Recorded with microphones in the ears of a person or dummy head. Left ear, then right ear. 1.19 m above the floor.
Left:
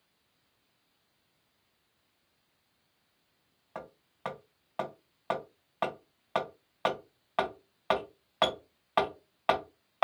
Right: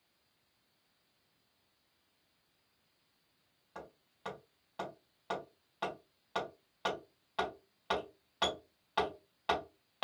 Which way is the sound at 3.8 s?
35° left (ahead or behind).